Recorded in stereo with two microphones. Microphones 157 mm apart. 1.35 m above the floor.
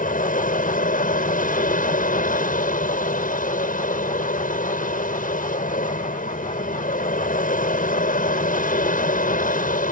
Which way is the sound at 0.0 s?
65° left (ahead or behind).